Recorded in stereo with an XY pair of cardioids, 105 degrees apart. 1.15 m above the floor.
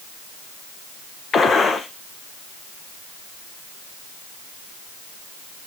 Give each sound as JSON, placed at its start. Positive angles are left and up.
{"t": 1.3, "sound": "a gunshot", "azimuth_deg": 40, "distance_m": 0.7}